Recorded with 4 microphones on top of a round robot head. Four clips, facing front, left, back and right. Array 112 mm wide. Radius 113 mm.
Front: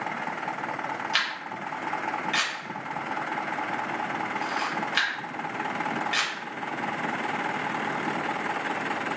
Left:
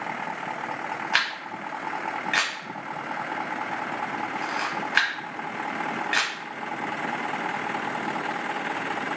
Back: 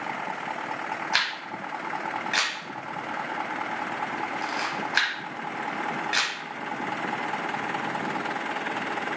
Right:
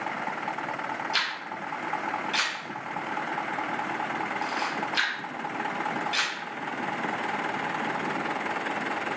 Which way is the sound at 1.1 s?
115° left.